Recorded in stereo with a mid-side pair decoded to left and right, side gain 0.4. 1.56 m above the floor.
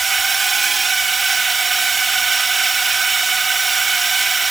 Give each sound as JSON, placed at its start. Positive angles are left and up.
{"t": 0.0, "sound": "a drone", "azimuth_deg": -40}